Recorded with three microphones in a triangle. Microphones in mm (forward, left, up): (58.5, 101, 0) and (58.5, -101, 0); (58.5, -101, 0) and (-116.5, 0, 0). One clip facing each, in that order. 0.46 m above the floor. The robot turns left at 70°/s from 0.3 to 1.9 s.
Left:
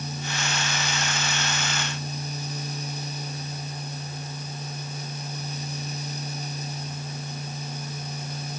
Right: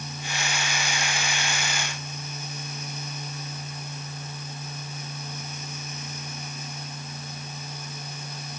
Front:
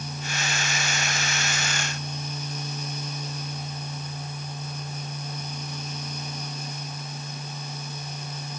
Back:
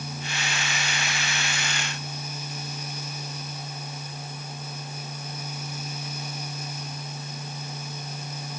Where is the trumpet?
I don't hear a trumpet.